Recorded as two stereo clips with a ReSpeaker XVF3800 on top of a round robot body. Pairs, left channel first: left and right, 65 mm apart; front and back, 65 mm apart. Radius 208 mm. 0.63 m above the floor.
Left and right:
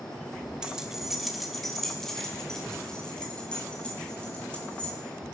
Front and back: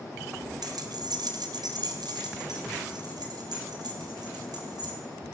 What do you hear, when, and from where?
0.6 s keys jangling: 170° right, 2 m; by 5.0 s 165° left, 6 m